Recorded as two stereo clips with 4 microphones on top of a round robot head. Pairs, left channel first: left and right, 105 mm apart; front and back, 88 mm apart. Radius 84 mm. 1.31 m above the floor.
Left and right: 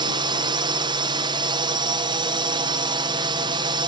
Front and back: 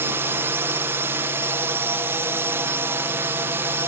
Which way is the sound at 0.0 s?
120° right.